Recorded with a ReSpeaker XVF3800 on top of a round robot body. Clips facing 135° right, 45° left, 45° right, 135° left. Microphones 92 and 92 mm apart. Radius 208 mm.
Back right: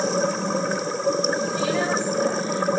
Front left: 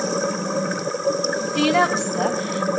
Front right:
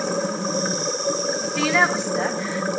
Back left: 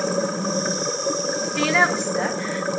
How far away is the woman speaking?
About 3 m.